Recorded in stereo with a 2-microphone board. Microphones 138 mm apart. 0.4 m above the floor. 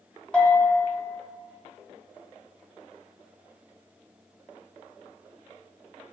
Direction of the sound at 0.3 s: 5° left (ahead or behind).